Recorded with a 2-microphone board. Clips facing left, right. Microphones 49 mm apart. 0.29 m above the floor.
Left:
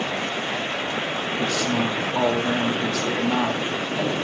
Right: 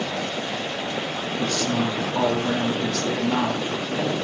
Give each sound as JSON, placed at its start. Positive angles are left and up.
{"t": 1.4, "sound": "a woman speaking", "side_deg": 5, "distance_m": 4.5}